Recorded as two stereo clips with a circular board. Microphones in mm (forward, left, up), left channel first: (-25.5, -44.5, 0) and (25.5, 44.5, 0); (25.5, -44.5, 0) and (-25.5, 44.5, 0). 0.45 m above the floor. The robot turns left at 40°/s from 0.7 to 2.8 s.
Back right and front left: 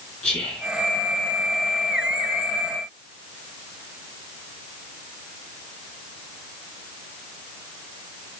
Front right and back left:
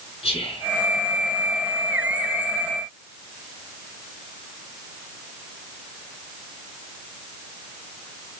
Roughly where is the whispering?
Ahead right.